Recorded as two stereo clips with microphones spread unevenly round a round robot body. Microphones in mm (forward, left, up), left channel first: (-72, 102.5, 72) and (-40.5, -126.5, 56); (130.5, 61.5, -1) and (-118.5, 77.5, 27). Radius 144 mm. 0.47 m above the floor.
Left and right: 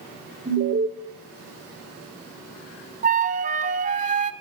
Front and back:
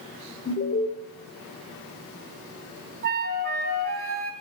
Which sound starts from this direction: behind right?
A flute, at 3.0 s.